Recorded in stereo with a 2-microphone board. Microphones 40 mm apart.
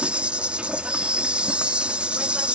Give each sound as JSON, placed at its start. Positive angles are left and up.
{"t": 0.0, "sound": "an insect", "side_deg": -30}